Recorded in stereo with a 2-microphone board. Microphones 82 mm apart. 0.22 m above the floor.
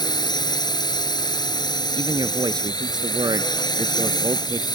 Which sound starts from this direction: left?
A drone, at 0.0 s.